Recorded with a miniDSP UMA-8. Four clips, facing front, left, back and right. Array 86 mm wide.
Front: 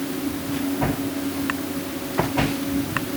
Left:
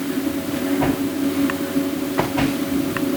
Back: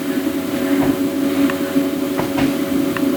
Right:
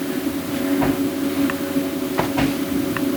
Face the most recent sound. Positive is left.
No sound to turn to.